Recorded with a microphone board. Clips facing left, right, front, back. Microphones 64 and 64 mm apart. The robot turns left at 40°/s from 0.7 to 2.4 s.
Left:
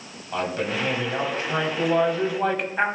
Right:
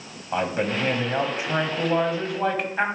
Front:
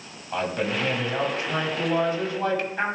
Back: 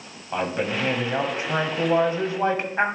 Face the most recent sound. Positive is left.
turn(degrees=180)